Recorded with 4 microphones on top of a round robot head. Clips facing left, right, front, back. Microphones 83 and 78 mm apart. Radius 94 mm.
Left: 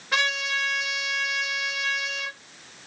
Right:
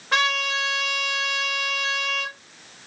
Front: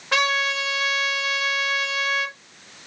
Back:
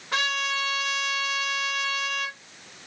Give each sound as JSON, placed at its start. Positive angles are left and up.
{"t": 0.1, "sound": "a trumpet", "azimuth_deg": -35, "distance_m": 1.0}